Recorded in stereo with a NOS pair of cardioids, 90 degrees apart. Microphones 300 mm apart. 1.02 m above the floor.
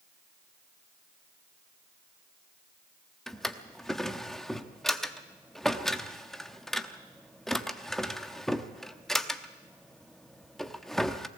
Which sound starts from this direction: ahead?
A drawer, at 3.3 s.